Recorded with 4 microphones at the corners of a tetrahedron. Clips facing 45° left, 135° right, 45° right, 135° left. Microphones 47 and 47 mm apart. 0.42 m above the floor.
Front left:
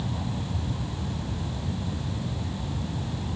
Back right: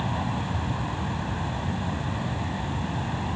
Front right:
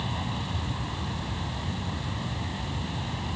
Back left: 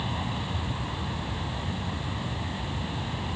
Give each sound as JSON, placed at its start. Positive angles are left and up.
{"t": 0.0, "sound": "an aircraft", "azimuth_deg": -140}